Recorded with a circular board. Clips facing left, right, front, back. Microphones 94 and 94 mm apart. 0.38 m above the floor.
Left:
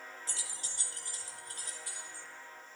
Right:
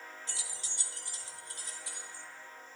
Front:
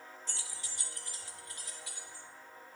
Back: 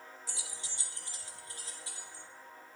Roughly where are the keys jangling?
Left.